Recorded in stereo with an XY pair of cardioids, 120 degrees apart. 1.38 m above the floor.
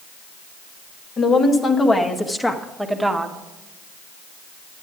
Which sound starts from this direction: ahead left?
A woman speaking, at 1.2 s.